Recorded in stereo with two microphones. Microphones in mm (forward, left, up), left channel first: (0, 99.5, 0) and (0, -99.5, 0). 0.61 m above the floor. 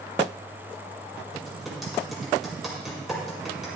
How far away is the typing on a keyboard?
About 4.5 m.